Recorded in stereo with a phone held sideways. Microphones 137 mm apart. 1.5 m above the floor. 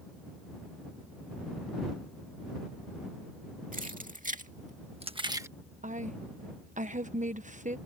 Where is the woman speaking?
65° right (ahead or behind).